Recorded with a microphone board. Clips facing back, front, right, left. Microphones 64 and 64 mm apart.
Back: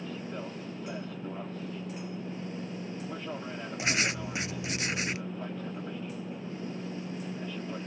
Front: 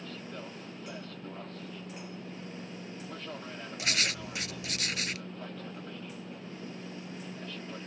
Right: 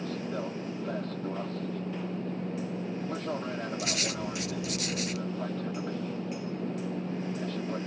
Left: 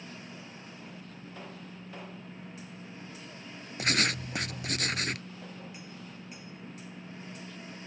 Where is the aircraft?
105° right.